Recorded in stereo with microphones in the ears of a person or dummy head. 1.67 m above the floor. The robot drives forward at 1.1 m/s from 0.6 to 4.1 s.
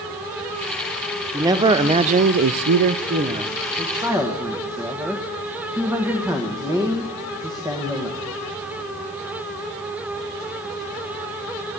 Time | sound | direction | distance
1.3 | a man speaking | 20° right (ahead or behind) | 1.5 m